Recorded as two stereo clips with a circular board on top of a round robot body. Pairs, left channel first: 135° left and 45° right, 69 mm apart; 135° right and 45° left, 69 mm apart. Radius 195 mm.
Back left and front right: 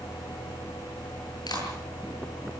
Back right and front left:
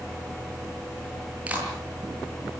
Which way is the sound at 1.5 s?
115° left.